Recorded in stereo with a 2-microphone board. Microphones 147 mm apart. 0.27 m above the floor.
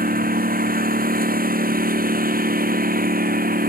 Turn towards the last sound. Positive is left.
turn(degrees=-75)  # may be behind; listen again after turning